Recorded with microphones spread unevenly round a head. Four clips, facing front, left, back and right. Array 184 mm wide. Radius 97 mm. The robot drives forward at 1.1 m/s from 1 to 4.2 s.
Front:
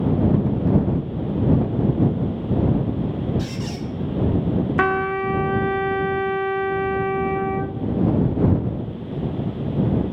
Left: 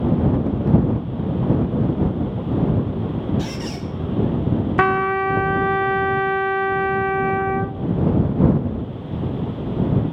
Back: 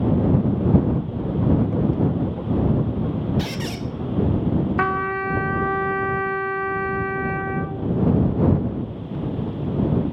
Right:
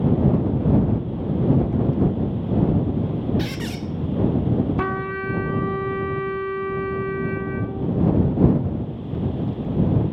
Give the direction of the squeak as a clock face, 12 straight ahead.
4 o'clock.